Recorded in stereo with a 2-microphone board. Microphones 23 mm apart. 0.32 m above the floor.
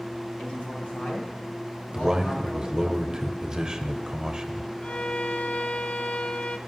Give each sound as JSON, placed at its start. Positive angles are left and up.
{"t": 0.4, "sound": "a man speaking", "side_deg": 65, "distance_m": 3.0}
{"t": 1.9, "sound": "a man speaking", "side_deg": -30, "distance_m": 1.1}
{"t": 4.8, "sound": "a violin", "side_deg": 65, "distance_m": 0.7}